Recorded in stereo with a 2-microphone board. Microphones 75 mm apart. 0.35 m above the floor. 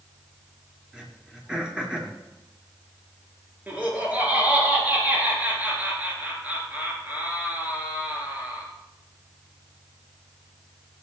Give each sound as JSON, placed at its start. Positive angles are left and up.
{"t": 0.9, "sound": "throat clearing", "side_deg": -10, "distance_m": 4.0}
{"t": 3.7, "sound": "laughter", "side_deg": -20, "distance_m": 5.0}